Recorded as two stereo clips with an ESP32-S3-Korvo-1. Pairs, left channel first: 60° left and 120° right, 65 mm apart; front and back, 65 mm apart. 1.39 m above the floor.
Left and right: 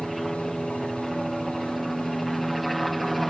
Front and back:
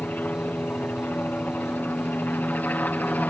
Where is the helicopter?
30° right.